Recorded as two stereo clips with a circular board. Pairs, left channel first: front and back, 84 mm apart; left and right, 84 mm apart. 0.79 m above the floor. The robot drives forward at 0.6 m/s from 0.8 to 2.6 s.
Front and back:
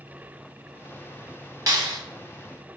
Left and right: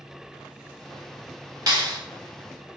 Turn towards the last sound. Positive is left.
turn(degrees=-140)